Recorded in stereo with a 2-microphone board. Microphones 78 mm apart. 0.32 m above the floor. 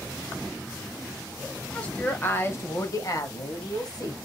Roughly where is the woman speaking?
Centre.